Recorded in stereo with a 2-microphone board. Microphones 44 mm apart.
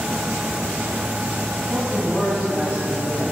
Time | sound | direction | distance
1.7 | a man speaking | 75° left (ahead or behind) | 2.5 m